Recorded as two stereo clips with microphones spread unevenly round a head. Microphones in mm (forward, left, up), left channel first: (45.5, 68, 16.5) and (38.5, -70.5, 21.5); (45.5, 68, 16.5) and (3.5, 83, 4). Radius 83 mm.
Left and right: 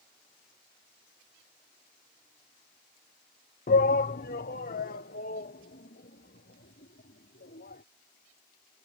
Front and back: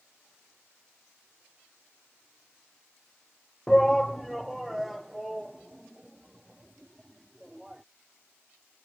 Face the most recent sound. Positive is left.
turn(degrees=70)